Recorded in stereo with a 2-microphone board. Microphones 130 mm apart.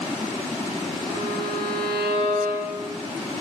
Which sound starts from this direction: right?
A violin, at 1.1 s.